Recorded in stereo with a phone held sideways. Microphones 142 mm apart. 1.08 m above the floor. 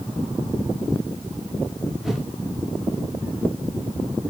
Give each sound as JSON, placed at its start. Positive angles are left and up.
{"t": 2.0, "sound": "a whoosh", "side_deg": 0, "distance_m": 1.0}